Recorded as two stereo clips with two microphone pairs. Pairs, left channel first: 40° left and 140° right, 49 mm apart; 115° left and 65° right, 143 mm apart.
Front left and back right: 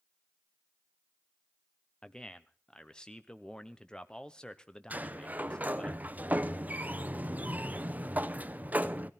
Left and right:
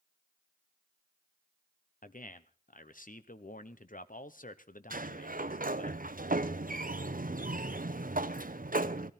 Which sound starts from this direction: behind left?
A man speaking, at 2.0 s.